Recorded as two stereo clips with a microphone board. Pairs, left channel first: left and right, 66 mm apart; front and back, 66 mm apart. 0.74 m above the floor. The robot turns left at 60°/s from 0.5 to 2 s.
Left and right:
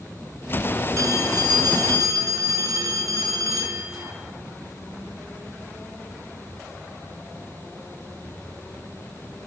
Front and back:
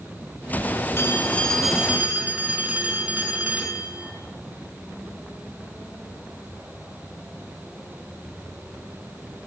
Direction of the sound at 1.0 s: 50° right.